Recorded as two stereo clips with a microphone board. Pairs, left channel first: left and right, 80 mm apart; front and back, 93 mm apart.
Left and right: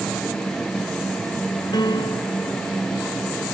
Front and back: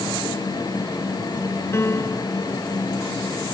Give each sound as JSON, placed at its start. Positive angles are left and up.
{"t": 1.7, "sound": "a piano", "azimuth_deg": 60}